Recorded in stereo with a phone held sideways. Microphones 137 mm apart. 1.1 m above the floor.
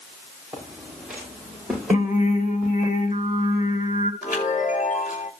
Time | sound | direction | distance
0.5 | footsteps | 10° right (ahead or behind) | 8.5 m
1.9 | singing | 80° left | 4 m
4.2 | a chime | 75° left (ahead or behind) | 4 m